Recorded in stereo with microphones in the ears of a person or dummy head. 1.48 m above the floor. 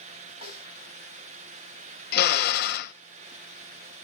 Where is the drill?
60° left (ahead or behind), 0.9 m.